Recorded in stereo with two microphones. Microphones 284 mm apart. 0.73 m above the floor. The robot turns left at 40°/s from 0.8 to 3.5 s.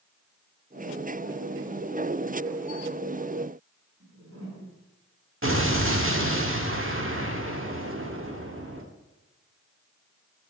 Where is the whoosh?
60° right (ahead or behind), 5.5 m.